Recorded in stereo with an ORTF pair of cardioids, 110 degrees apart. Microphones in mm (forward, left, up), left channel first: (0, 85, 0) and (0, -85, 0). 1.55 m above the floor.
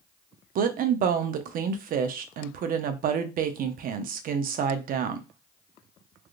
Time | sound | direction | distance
0.6 | a woman speaking | 55° right | 0.6 m